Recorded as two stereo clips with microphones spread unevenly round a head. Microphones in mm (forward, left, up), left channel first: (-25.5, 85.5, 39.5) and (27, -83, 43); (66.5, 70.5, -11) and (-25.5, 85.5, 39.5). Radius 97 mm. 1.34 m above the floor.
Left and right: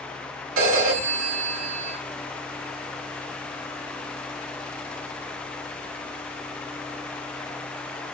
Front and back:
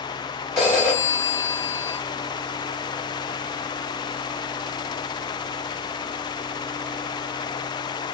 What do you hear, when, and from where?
0.6 s a phone ringing: 70° right, 3 m